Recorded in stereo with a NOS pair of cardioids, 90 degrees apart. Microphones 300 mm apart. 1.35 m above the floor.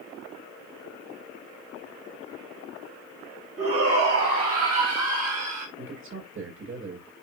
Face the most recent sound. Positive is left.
turn(degrees=-45)